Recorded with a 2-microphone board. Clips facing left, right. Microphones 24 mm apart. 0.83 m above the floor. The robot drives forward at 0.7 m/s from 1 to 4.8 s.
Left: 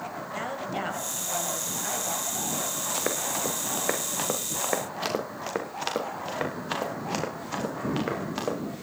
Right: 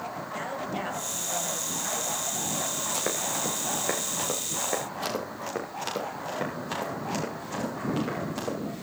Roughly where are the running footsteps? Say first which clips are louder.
Left 1 dB; centre.